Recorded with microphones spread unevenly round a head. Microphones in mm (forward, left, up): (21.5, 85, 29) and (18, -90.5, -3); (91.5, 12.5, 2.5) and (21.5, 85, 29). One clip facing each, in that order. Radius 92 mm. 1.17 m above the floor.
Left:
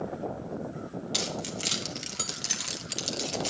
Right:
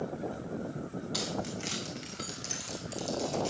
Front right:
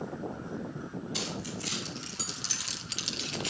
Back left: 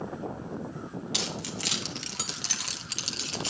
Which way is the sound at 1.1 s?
145° left.